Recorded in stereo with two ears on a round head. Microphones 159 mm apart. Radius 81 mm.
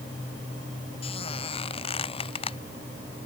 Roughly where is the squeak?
Left.